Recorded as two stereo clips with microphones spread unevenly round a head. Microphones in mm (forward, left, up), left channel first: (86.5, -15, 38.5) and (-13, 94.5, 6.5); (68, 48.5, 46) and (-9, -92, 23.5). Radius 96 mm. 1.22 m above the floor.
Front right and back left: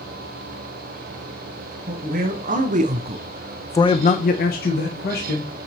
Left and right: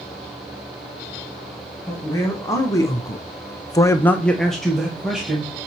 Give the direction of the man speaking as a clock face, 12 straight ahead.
7 o'clock.